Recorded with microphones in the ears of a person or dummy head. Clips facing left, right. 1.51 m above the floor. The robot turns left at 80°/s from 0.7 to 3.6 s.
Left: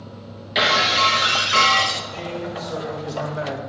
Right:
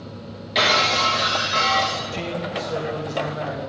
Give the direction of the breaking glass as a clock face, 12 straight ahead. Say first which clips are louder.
Even; 6 o'clock.